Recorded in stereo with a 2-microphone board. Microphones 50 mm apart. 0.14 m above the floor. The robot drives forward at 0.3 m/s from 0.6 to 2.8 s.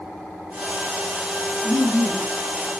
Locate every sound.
1.6 s laughter: centre (ahead or behind), 1.1 m